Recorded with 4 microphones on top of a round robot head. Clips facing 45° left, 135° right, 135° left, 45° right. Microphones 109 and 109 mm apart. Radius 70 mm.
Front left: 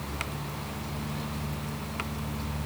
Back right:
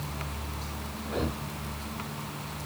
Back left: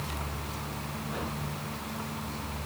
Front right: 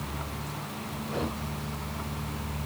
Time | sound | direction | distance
1.1 | breathing | 105° right | ?